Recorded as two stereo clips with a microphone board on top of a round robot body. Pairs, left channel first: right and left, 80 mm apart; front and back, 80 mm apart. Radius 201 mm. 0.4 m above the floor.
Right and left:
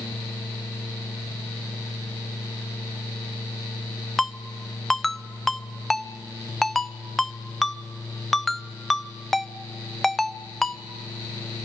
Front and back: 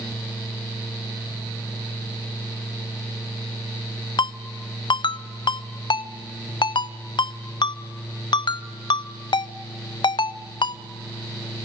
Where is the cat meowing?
No cat meowing in this recording.